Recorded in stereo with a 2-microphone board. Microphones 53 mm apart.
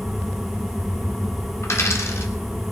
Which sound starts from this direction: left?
A dropped coin, at 1.6 s.